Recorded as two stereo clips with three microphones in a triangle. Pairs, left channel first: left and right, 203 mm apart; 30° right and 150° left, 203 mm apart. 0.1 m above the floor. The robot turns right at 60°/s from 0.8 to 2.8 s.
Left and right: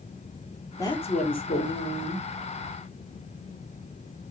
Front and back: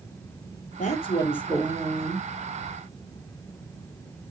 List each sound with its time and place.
0.8 s a woman speaking: 15° left, 3 m; by 2.2 s 105° left, 3 m